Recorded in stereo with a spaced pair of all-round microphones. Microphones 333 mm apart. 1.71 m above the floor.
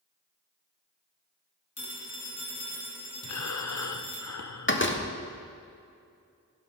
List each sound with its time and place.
1.8 s a phone ringing: 60° left (ahead or behind), 1.5 m
3.2 s breathing: 55° left (ahead or behind), 0.5 m
4.7 s a door slam: 35° left (ahead or behind), 0.7 m